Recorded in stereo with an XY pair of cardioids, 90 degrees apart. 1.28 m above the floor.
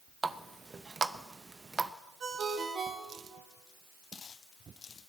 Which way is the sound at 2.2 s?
55° right.